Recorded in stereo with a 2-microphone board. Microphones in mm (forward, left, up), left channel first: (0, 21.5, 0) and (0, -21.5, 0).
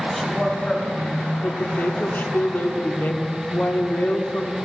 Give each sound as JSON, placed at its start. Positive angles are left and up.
{"t": 0.1, "sound": "a woman speaking", "side_deg": 10, "distance_m": 3.0}
{"t": 1.4, "sound": "a woman speaking", "side_deg": 50, "distance_m": 1.3}